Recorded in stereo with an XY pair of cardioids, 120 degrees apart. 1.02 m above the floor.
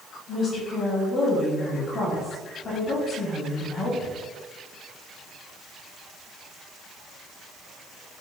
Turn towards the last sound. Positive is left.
turn(degrees=60)